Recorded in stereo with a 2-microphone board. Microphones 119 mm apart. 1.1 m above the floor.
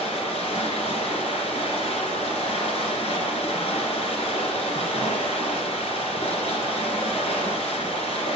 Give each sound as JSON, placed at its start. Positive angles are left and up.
{"t": 0.0, "sound": "running water", "side_deg": 60, "distance_m": 2.5}